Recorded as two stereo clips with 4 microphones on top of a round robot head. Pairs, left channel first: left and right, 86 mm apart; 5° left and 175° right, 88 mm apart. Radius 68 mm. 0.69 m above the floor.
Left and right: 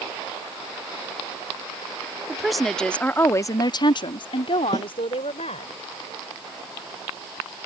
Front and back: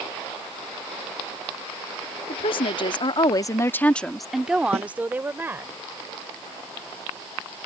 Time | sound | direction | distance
2.3 | a woman speaking | 5° right | ?
4.7 | a snare drum | 150° right | ?